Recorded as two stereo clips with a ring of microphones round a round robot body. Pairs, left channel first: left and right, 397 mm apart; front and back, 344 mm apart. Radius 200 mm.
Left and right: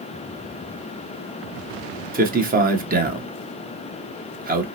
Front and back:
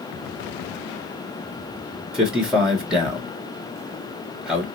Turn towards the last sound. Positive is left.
turn(degrees=-95)